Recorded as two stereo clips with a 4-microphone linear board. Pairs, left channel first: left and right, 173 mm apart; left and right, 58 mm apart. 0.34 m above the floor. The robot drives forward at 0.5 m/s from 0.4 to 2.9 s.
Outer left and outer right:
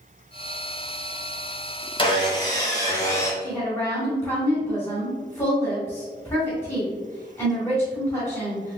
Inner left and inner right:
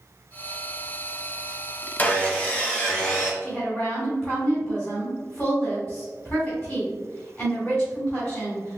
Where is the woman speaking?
15° left (ahead or behind), 1.7 m.